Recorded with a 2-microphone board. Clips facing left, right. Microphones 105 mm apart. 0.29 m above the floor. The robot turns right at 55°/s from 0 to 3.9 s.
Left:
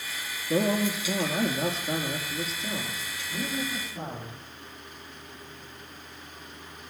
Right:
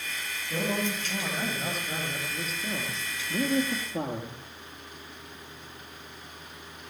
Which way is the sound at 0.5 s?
70° left.